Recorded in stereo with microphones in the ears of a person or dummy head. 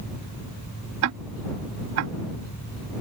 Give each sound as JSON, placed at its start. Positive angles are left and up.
{"t": 1.0, "sound": "ticking", "side_deg": -75}